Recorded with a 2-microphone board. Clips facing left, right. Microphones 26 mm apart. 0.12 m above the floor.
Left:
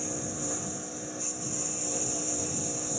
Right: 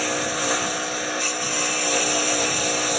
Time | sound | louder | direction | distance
0.0 | a lawn mower | right 12 dB | 80° right | ?